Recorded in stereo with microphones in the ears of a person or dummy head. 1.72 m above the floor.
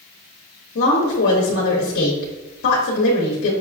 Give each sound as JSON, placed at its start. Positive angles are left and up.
{"t": 0.8, "sound": "a woman speaking", "side_deg": 60, "distance_m": 0.9}